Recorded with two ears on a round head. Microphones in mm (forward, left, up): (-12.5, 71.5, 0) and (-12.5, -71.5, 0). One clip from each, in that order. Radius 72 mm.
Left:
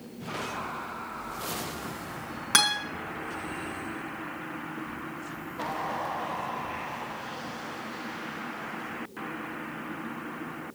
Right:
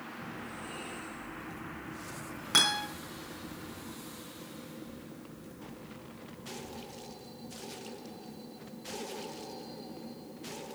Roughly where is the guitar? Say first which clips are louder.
Left 2 dB; centre.